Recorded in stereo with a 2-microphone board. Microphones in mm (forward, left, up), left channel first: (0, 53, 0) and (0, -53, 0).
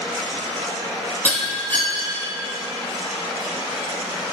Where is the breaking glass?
15° left (ahead or behind), 3 m.